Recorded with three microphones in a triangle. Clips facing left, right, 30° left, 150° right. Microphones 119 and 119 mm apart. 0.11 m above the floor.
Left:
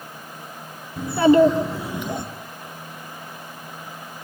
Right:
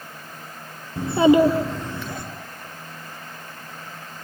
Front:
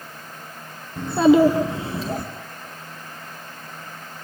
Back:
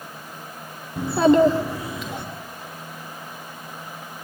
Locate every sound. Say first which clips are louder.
1.0 s a child speaking: left 1 dB, front 1 dB; 80° right, 1.0 m; by 2.2 s 40° left, 1.1 m